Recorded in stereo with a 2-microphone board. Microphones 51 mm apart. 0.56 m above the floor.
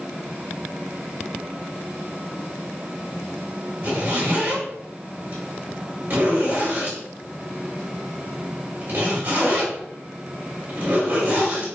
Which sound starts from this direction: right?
A zipper, at 3.8 s.